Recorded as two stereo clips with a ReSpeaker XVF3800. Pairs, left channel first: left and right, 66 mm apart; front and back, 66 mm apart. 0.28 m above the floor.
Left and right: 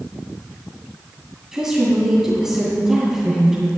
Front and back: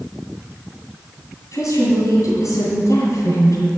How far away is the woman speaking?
About 2.5 m.